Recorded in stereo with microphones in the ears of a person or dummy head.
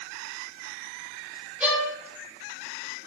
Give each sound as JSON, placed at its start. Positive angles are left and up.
{"t": 1.6, "sound": "a violin", "side_deg": 0, "distance_m": 3.0}